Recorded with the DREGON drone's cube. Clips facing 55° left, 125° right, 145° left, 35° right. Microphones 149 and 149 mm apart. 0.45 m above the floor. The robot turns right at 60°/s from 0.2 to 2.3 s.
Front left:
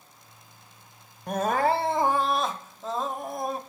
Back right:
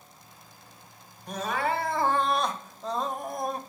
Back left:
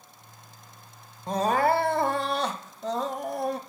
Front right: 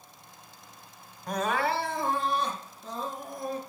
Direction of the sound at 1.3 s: 80° left.